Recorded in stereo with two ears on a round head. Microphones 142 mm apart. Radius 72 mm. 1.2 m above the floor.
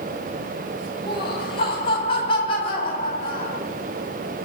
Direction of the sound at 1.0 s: 35° left (ahead or behind).